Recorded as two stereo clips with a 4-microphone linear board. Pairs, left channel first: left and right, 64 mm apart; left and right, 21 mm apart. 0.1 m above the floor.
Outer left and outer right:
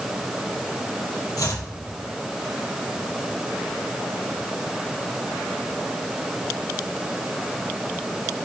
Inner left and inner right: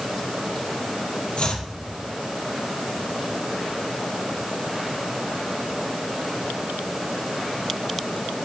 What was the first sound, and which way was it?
Chopping, 65° left (ahead or behind).